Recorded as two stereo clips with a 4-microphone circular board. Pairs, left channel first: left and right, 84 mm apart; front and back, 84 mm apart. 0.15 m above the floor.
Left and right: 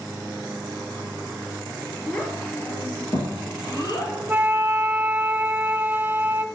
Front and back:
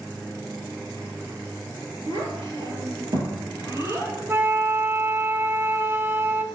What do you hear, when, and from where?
2.1 s a child speaking: 170° left, 2.5 m; by 4.2 s 125° left, 2.5 m
4.3 s a flute: 145° right, 0.7 m